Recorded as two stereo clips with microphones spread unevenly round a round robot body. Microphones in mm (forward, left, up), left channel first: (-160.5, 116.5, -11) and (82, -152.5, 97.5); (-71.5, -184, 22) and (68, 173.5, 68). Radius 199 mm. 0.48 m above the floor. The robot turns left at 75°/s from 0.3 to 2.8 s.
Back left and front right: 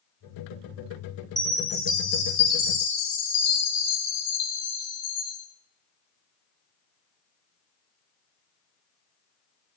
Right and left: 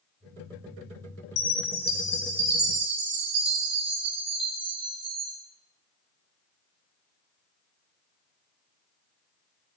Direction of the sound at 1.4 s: 130° right.